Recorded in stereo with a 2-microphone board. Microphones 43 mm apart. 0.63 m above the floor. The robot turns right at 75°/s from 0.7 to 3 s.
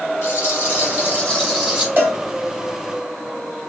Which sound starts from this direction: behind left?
A rattle, at 0.2 s.